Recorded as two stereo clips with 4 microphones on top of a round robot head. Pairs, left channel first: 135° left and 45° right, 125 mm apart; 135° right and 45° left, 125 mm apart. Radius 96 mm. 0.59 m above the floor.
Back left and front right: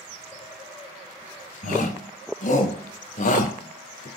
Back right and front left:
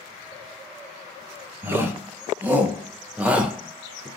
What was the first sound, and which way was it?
A shout, 120° left.